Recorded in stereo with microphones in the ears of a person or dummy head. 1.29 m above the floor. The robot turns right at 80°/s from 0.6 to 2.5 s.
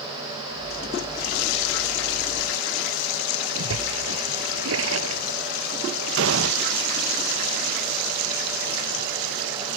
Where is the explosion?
65° right (ahead or behind).